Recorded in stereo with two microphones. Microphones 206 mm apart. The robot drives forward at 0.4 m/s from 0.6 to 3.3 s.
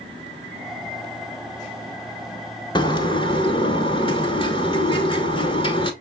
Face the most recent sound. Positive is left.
turn(degrees=25)  # may be behind; listen again after turning